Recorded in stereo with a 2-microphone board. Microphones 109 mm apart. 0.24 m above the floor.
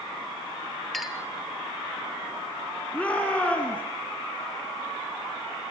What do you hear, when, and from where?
0.9 s a clink: centre (ahead or behind), 2.5 m
2.9 s a shout: 10° left (ahead or behind), 3 m